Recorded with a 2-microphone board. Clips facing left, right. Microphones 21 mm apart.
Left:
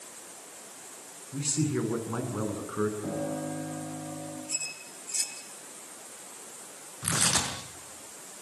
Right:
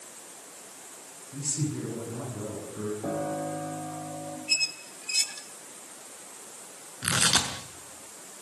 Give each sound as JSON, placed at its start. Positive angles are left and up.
{"t": 1.3, "sound": "a man speaking", "side_deg": 70, "distance_m": 8.5}
{"t": 3.0, "sound": "a piano", "side_deg": -35, "distance_m": 8.5}
{"t": 4.5, "sound": "a squeak", "side_deg": -80, "distance_m": 2.0}
{"t": 7.0, "sound": "tearing paper", "side_deg": -75, "distance_m": 6.0}